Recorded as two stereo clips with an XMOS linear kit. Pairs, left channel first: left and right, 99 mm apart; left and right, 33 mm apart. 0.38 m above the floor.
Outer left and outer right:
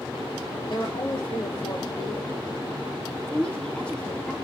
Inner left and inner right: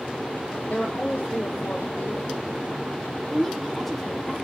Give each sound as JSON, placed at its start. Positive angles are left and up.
{"t": 0.7, "sound": "a woman speaking", "side_deg": 60, "distance_m": 4.0}
{"t": 3.3, "sound": "a woman speaking", "side_deg": 10, "distance_m": 1.0}